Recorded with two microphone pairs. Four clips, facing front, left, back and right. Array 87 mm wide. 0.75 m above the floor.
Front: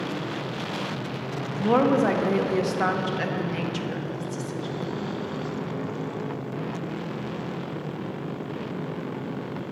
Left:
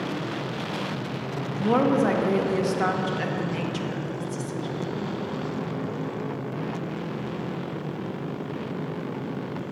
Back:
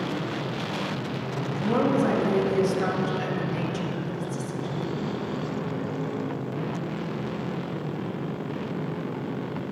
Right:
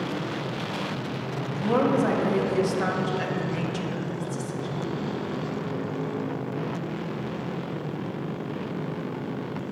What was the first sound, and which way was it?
A woman speaking, 10° left.